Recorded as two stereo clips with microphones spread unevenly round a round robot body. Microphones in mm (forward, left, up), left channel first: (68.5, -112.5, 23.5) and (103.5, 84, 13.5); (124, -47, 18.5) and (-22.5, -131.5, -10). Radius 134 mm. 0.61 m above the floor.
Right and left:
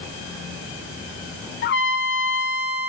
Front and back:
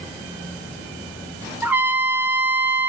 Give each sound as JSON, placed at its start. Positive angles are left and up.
{"t": 1.6, "sound": "a trumpet", "azimuth_deg": -75, "distance_m": 2.0}